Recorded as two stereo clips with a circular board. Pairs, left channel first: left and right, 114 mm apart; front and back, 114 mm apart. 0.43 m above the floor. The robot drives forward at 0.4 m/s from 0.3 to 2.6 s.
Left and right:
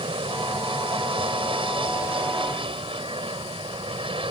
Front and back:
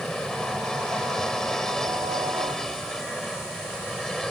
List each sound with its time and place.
0.0 s an aircraft: 85° right